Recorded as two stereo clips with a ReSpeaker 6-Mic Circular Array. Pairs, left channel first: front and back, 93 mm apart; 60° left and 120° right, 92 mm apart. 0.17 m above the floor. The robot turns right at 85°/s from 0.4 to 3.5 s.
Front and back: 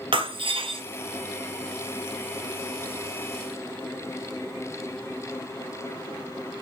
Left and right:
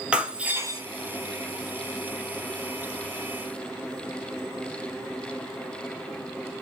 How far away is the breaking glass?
About 1.8 m.